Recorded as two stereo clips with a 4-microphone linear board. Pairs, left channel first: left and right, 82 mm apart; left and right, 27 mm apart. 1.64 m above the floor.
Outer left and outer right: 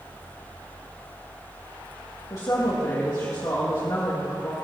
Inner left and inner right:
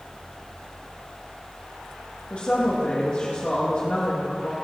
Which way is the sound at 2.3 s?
50° left (ahead or behind).